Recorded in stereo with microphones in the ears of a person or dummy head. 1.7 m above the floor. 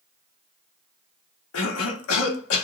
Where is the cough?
70° left (ahead or behind), 0.8 m.